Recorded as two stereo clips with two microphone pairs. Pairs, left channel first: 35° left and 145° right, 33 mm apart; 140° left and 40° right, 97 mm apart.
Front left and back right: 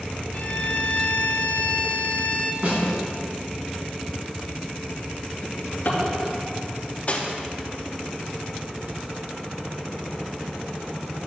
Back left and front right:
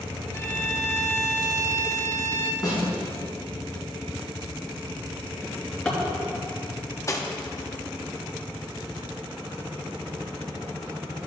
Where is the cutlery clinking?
85° left, 0.9 m.